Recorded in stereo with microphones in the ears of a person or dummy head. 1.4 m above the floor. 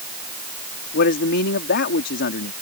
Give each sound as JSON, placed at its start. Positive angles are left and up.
{"t": 0.9, "sound": "a man speaking", "side_deg": 60}